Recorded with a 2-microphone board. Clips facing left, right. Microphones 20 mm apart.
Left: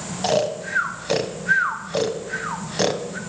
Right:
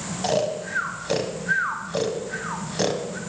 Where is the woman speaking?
No woman speaking in this recording.